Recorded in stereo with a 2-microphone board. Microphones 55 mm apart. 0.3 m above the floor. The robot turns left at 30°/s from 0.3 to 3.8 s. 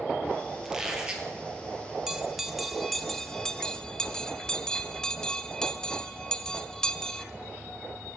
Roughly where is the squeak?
Centre.